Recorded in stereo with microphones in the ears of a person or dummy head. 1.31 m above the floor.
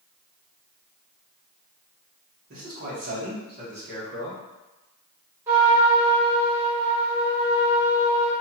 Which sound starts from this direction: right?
A man speaking, at 2.5 s.